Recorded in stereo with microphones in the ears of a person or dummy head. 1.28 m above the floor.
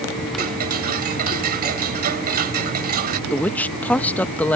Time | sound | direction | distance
0.4 | ticking | 55° right (ahead or behind) | ?
3.3 | a woman speaking | 5° left (ahead or behind) | ?